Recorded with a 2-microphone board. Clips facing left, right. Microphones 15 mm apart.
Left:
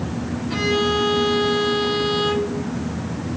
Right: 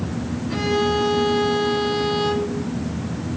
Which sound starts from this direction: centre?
A violin, at 0.5 s.